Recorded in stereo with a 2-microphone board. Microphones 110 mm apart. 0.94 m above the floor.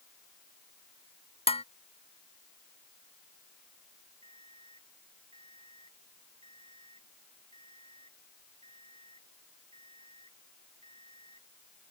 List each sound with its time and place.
1.5 s dishes clattering: 70° left (ahead or behind)
4.2 s an alarm clock: 65° right (ahead or behind)